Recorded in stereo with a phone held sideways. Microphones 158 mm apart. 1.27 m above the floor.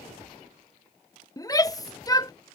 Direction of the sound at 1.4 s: 25° left (ahead or behind).